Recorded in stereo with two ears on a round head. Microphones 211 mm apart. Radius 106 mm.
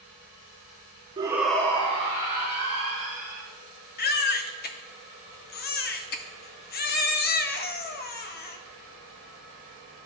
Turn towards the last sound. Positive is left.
turn(degrees=40)  # may be behind; listen again after turning